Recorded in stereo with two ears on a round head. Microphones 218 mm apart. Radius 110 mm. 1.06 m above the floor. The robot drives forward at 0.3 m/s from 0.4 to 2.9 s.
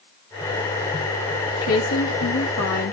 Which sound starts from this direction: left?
A woman speaking, at 1.6 s.